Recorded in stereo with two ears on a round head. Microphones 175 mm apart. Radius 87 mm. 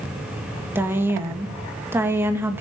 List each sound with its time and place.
0.8 s a woman speaking: 10° right (ahead or behind), 1.6 m